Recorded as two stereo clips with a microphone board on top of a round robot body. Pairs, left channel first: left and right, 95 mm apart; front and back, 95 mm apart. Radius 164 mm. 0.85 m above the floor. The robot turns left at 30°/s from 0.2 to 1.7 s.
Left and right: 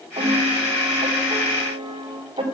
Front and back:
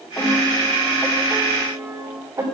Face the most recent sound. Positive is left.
turn(degrees=-115)